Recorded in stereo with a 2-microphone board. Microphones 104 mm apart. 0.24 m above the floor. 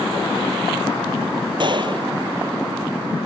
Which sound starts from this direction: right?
A gunshot, at 1.6 s.